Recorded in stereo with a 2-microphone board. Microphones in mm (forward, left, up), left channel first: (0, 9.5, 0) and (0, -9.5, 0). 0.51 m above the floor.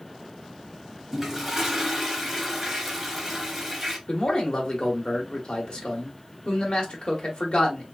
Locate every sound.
1.1 s a toilet flushing: 10° right (ahead or behind), 1.1 m
4.1 s a man speaking: 50° left (ahead or behind), 1.3 m